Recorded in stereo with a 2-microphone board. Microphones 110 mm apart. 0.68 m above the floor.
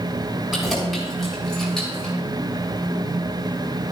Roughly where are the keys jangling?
Centre.